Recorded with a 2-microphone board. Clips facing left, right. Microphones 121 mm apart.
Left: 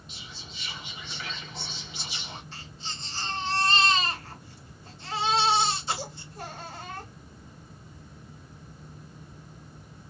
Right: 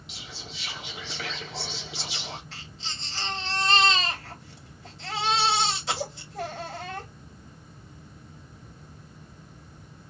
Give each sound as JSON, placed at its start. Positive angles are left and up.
{"t": 0.1, "sound": "whispering", "side_deg": -70, "distance_m": 1.7}
{"t": 2.5, "sound": "a baby crying", "side_deg": -80, "distance_m": 2.5}